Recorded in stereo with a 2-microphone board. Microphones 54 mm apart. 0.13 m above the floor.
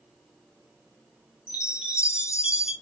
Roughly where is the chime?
Right.